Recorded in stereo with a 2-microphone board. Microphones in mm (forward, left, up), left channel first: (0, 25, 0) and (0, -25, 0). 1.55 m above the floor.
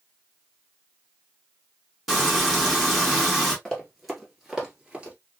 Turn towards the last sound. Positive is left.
turn(degrees=-25)  # may be behind; listen again after turning